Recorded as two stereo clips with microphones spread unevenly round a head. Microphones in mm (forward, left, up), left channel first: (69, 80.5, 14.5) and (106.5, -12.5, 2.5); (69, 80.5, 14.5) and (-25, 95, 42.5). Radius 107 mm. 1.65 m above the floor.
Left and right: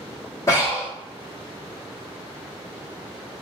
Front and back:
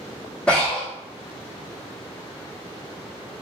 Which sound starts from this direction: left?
Breathing, at 0.5 s.